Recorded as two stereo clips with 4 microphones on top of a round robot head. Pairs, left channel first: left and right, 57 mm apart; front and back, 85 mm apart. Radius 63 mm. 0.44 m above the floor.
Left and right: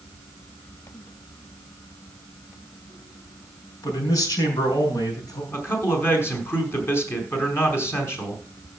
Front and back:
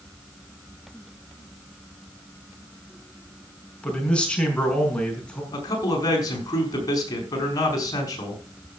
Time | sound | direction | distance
3.8 | a man speaking | 75° left | 5.5 m
5.5 | a man speaking | 45° left | 5 m